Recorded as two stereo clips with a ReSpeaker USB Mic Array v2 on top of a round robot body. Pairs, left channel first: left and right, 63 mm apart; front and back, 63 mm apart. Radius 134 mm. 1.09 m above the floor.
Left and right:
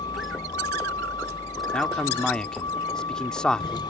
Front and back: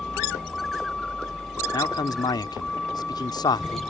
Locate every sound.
0.0 s a vehicle: 85° left
1.7 s a man speaking: 10° left